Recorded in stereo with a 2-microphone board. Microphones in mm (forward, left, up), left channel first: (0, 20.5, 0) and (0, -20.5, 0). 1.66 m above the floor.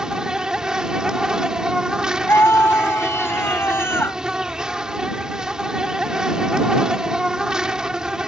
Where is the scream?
75° left (ahead or behind).